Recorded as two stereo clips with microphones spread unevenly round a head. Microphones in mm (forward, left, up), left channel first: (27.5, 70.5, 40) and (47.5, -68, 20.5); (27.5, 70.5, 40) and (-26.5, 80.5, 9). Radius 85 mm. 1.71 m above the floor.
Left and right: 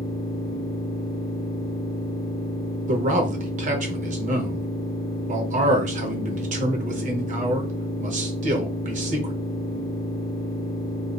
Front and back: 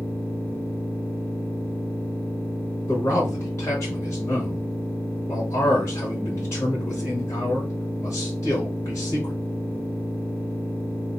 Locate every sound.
0.0 s a machine running: 40° left, 0.8 m
2.9 s a man speaking: 50° right, 0.8 m